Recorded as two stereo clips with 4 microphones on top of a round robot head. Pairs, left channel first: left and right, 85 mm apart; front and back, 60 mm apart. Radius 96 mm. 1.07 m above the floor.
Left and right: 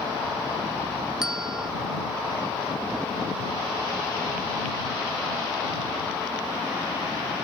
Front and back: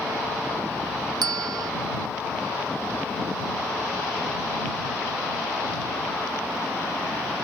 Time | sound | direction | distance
1.2 | a bell | 175° right | ?